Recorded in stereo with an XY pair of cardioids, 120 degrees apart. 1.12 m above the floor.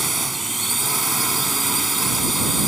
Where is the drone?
10° right.